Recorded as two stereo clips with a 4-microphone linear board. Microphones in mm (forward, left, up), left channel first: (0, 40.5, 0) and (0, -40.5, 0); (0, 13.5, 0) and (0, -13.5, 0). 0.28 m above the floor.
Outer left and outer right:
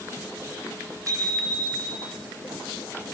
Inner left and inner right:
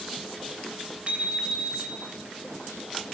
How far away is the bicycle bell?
About 6.5 m.